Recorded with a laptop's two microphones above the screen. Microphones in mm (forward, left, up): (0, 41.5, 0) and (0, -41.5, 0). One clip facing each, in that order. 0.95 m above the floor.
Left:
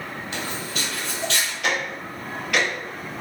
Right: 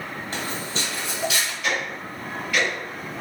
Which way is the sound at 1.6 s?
70° left (ahead or behind).